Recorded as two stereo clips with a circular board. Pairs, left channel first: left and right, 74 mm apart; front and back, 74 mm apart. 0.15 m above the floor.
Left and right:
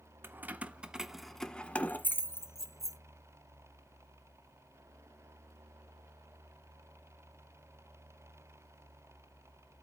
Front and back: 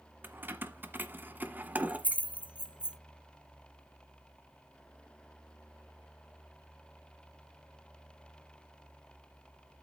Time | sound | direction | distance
0.2 | keys jangling | 135° right | 1.2 m